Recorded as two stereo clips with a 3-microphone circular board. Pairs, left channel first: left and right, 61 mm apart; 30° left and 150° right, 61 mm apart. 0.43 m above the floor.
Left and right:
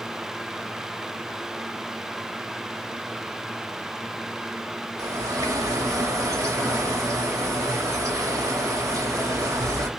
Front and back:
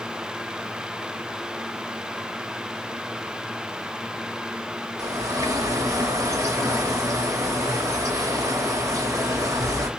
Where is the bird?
115° right, 0.8 m.